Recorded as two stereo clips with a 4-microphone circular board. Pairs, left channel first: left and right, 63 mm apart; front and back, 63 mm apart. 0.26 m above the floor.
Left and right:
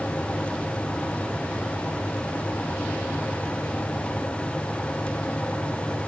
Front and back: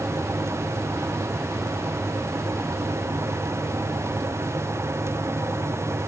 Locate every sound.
Only background noise.